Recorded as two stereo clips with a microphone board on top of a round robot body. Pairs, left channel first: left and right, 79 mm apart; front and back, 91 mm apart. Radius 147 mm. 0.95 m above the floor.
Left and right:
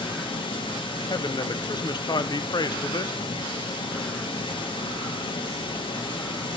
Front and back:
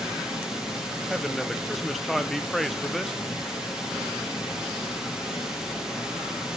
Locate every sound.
0.0 s running water: 95° left, 1.0 m
1.1 s a man speaking: 90° left, 0.7 m